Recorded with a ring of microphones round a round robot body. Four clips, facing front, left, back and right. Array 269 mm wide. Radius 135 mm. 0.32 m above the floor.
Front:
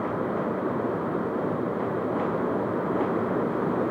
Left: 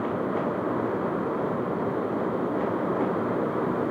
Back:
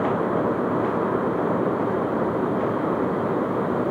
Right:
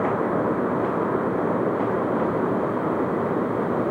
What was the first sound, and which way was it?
Only background noise.